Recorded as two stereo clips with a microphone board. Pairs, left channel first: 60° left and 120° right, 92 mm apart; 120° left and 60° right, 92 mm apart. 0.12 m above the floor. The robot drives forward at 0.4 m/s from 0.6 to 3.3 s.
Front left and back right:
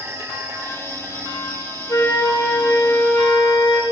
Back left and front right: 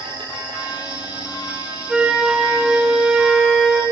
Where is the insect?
60° right, 10 m; by 3.9 s 65° right, 9.5 m.